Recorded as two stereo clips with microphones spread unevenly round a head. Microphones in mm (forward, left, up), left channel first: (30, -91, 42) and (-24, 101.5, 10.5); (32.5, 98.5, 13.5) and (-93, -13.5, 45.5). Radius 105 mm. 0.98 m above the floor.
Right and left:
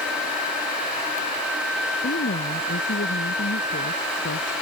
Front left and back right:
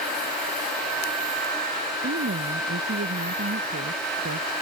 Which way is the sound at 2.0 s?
120° right.